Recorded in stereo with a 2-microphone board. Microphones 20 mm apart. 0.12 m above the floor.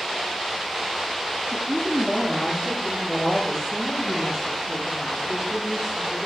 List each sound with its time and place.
1.5 s a woman speaking: 20° right (ahead or behind), 1.5 m; by 6.2 s 30° right (ahead or behind), 6.5 m